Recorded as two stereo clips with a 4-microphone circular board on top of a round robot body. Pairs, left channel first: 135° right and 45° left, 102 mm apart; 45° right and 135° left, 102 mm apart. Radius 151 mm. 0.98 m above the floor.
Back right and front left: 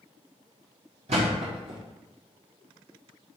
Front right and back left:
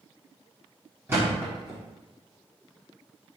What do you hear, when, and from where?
1.1 s a thud: 65° left, 0.7 m